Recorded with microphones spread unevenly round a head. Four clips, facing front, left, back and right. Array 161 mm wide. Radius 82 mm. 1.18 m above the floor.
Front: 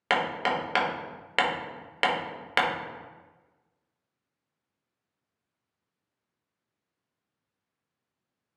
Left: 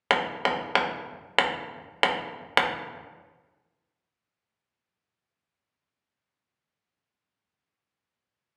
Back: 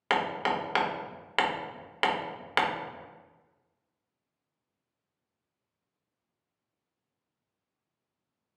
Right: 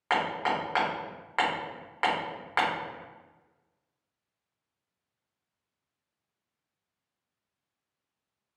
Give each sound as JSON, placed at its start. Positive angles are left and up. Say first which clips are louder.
{"t": 0.1, "sound": "hammering", "louder": "left 2 dB, front 1 dB", "azimuth_deg": 80, "distance_m": 1.0}